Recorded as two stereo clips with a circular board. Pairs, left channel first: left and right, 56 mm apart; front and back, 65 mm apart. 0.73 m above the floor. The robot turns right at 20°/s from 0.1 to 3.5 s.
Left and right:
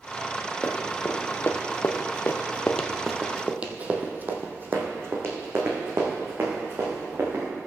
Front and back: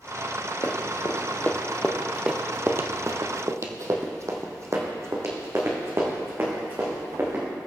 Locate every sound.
0.6 s running footsteps: 30° left, 1.7 m; by 7.4 s 130° right, 4 m